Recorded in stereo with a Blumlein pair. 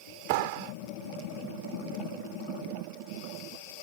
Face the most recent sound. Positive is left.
turn(degrees=-45)